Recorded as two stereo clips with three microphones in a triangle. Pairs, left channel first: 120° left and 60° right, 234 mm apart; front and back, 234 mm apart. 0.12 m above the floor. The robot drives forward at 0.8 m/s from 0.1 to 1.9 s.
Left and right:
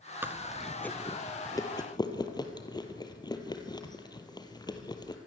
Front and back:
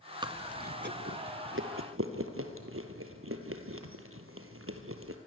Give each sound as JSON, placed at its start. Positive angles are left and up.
{"t": 0.2, "sound": "chewing", "azimuth_deg": -130, "distance_m": 0.8}